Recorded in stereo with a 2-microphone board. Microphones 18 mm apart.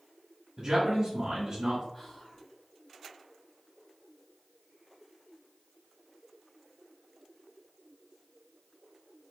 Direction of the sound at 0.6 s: 40° right (ahead or behind).